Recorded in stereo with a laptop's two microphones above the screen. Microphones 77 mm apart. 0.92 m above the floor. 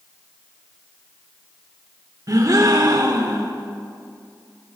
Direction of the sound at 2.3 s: 50° right (ahead or behind).